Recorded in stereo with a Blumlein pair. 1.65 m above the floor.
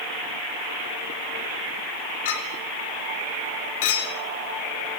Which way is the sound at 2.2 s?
50° left.